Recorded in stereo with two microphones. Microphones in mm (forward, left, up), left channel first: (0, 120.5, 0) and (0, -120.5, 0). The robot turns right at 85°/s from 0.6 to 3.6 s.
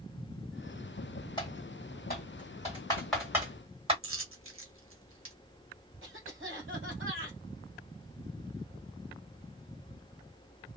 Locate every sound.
1.4 s typing on a keyboard: 20° left (ahead or behind), 1.8 m; by 3.9 s 25° right (ahead or behind), 1.8 m
4.0 s a dropped coin: 65° right (ahead or behind), 1.0 m
6.0 s a cough: 60° right (ahead or behind), 1.4 m